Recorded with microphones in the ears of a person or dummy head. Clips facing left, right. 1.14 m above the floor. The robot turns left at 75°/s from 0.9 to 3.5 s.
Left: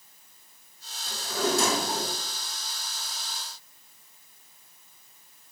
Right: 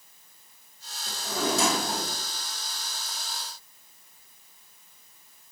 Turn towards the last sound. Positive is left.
turn(degrees=115)